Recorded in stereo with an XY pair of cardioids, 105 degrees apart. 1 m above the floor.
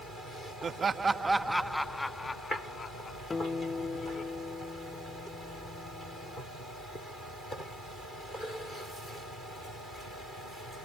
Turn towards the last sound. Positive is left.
turn(degrees=30)